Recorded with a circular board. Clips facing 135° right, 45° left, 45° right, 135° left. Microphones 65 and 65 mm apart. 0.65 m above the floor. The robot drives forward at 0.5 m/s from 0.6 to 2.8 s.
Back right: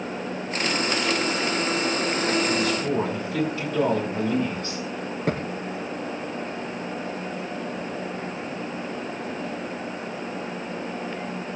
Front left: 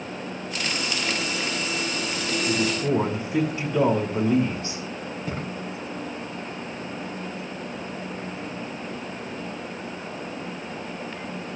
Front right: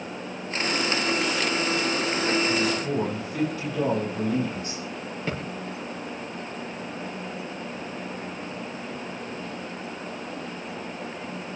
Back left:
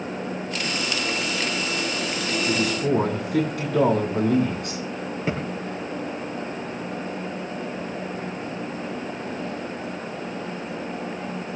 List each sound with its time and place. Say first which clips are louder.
2.5 s a man speaking: even, back left 3 dB; 110° left, 7 m; by 4.8 s 115° left, 7 m
5.3 s a thud: back right 7 dB, back left 4 dB; 155° right, 6.5 m